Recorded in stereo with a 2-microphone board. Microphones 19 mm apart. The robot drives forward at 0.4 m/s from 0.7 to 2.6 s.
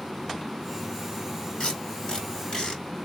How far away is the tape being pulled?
About 2.5 m.